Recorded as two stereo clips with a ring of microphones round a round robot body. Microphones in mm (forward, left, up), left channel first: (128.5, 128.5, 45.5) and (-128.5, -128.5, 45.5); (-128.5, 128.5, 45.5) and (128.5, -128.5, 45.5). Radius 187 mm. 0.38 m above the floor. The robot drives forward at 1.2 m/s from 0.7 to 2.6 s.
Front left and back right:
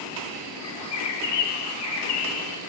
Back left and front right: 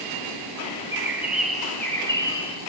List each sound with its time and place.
0.6 s a bird: 35° left, 5 m; by 2.6 s 60° left, 3.5 m